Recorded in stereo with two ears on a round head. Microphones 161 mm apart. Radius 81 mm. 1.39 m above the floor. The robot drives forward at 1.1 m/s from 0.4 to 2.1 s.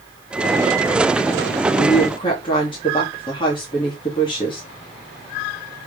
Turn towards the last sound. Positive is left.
turn(degrees=30)  # may be behind; listen again after turning